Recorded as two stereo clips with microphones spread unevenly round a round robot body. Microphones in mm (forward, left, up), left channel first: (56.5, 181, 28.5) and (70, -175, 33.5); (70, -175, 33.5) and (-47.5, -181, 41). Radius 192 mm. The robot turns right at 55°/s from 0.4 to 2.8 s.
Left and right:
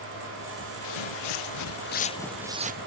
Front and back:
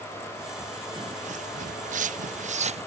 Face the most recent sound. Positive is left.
turn(degrees=-150)